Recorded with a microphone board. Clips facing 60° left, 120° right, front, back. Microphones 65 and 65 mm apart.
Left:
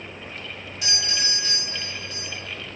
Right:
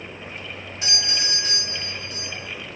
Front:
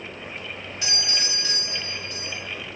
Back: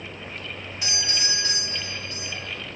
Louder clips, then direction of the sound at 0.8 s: Even, even; 140° right.